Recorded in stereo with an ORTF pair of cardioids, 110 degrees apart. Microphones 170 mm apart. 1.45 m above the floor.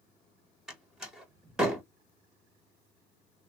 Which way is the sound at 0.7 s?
5° right.